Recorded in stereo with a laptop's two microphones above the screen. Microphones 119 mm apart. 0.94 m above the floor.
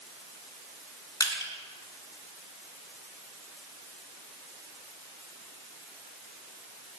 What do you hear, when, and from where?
1.2 s crushing: 35° left (ahead or behind), 2.5 m